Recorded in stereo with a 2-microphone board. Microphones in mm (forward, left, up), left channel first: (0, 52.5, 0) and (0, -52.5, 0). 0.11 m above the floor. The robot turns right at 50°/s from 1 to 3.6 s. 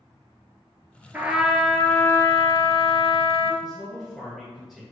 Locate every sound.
1.1 s a trumpet: 20° right, 0.5 m; by 3.5 s 100° left, 0.5 m
3.6 s a man speaking: 5° right (ahead or behind), 1.9 m